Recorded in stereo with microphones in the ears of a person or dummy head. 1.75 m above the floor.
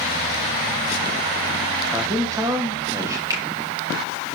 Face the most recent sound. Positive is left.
turn(degrees=-20)  # may be behind; listen again after turning